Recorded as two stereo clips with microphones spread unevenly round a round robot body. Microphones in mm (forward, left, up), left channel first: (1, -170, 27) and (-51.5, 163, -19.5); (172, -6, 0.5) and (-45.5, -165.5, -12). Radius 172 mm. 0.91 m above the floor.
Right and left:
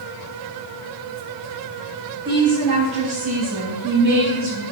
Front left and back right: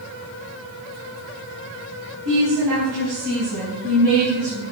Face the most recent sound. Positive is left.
turn(degrees=145)